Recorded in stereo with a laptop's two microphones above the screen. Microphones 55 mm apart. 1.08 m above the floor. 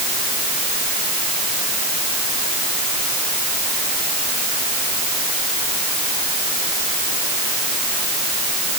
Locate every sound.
Only background noise.